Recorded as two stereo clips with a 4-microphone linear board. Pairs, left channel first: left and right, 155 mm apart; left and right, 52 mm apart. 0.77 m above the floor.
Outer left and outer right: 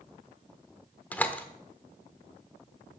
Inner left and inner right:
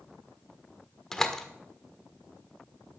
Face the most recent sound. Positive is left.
turn(degrees=10)  # may be behind; listen again after turning